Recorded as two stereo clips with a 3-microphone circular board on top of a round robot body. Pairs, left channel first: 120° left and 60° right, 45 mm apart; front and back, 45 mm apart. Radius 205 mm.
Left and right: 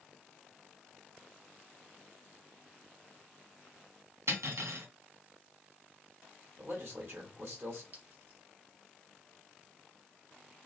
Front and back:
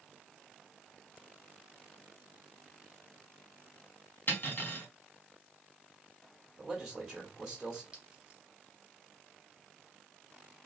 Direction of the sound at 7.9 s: 110° right.